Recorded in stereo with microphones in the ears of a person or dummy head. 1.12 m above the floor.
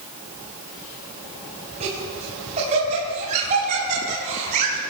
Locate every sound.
1.8 s laughter: 40° right (ahead or behind), 7.5 m; by 4.8 s 45° right (ahead or behind), 6.5 m